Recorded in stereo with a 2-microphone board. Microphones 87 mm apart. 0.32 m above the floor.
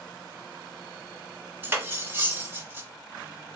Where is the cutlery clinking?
25° right (ahead or behind), 0.6 m.